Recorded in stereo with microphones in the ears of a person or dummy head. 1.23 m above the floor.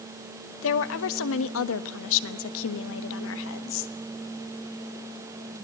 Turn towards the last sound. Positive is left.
turn(degrees=70)  # may be behind; listen again after turning